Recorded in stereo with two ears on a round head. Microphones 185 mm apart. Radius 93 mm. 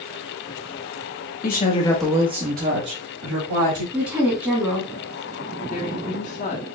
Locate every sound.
1.4 s a woman speaking: 45° left (ahead or behind), 0.9 m; by 3.8 s 70° right (ahead or behind), 2.0 m
3.9 s a woman speaking: 15° right (ahead or behind), 1.1 m
5.7 s a woman speaking: 35° left (ahead or behind), 0.9 m